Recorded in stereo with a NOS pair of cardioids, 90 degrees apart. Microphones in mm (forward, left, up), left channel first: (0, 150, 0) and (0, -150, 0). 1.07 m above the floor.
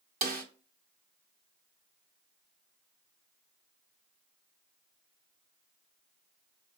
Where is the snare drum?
30° right, 0.9 m.